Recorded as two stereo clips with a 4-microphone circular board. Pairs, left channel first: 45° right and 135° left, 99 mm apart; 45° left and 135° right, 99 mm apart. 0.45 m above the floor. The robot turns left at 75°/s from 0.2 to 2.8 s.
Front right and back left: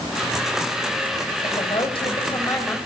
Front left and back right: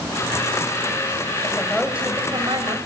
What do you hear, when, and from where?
1.4 s a woman speaking: 20° right, 3 m; by 2.8 s 120° right, 3 m